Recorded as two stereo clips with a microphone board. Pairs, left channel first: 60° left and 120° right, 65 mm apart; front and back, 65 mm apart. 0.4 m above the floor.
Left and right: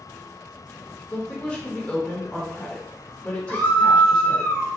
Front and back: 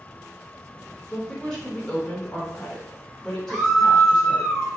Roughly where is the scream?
Left.